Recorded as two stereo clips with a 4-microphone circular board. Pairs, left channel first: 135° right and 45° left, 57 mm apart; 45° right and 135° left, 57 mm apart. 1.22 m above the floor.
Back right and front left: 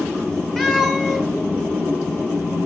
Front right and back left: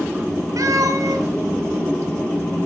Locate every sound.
0.6 s a cat meowing: 145° left, 4 m